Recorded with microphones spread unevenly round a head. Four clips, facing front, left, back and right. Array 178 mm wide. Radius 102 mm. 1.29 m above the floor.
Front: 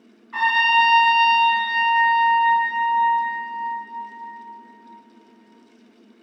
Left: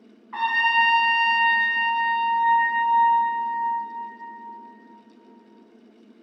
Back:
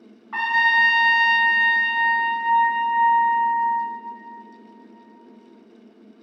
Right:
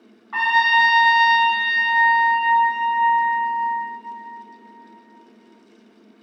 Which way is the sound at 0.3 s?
115° right.